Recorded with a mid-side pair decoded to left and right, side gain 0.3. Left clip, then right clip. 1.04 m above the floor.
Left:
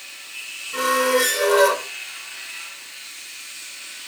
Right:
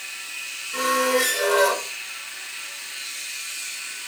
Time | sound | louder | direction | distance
0.7 | a squeak | left 2 dB | 60° left | 3.5 m